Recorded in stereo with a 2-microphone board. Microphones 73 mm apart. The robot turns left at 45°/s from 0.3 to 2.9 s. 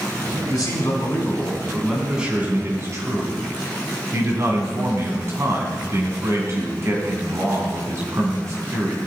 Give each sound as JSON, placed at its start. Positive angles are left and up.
{"t": 0.5, "sound": "a man speaking", "azimuth_deg": 65, "distance_m": 3.0}